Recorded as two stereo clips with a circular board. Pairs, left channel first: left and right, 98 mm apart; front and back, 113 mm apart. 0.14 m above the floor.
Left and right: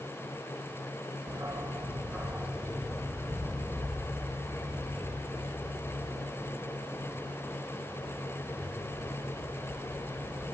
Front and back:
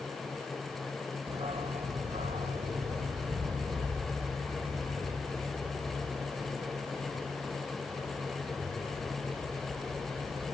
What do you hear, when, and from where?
1.3 s a dog barking: 145° right, 1.5 m; by 10.4 s 150° left, 7 m